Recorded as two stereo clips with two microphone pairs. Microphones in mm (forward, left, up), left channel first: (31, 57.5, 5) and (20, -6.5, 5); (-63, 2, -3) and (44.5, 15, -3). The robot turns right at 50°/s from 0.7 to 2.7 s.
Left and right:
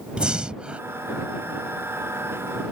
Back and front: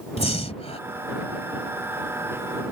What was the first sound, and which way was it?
Breathing, 175° right.